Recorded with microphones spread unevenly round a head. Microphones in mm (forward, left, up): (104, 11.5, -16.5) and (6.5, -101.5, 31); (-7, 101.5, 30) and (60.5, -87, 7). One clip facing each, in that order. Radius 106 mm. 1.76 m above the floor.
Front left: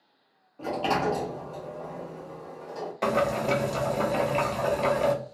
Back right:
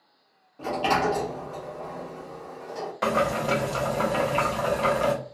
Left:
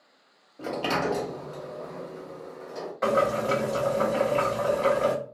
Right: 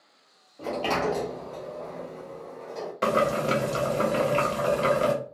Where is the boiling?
40° right, 0.6 m.